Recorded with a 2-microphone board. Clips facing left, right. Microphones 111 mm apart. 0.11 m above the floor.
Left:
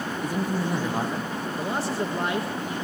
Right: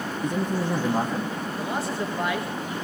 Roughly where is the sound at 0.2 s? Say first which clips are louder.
Right 2 dB; centre.